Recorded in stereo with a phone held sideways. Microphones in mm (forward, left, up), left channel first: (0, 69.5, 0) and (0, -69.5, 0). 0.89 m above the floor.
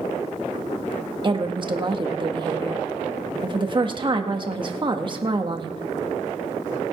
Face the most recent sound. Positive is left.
turn(degrees=-35)  # may be behind; listen again after turning